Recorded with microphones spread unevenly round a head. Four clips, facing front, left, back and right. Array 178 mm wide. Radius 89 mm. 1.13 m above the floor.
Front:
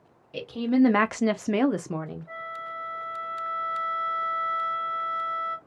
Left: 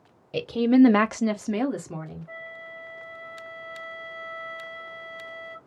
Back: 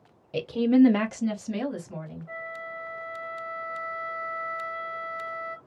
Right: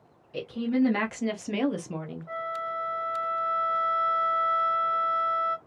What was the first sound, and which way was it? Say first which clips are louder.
A woman speaking: left 8 dB, back 3 dB; 120° left.